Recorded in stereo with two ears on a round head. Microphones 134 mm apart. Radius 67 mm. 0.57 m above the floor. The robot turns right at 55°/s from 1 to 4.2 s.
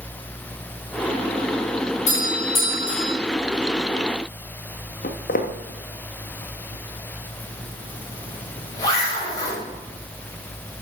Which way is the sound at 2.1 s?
55° left.